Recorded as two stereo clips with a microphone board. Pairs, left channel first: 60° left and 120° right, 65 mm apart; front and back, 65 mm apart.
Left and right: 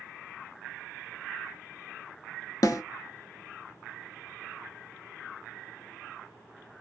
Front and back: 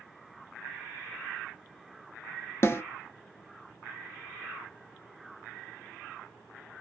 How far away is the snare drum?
About 0.5 m.